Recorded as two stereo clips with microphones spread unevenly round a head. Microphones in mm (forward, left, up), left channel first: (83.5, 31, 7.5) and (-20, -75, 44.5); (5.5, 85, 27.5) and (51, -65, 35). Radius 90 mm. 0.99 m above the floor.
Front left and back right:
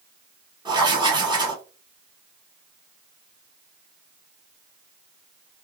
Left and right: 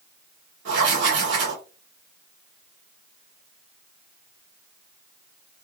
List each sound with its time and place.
0.7 s writing: 70° right, 1.7 m